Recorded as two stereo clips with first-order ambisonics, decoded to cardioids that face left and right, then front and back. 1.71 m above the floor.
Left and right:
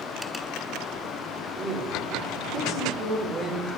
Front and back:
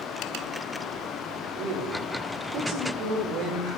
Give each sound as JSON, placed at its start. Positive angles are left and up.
{"t": 1.6, "sound": "a woman speaking", "azimuth_deg": -155, "distance_m": 5.5}